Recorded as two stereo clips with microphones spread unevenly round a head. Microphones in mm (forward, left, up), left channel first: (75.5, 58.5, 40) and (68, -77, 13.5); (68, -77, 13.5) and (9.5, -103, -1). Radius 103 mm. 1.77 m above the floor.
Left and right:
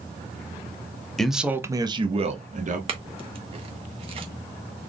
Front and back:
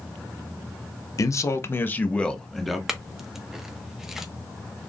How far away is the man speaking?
About 0.7 m.